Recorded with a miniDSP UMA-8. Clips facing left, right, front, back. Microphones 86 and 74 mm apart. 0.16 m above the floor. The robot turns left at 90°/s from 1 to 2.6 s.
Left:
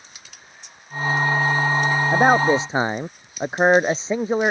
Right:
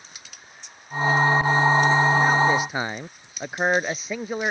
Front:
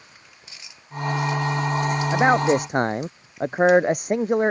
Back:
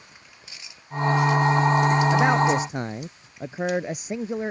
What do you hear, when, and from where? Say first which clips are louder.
2.1 s a man speaking: left 3 dB, front 2 dB; 75° left; by 4.5 s 30° left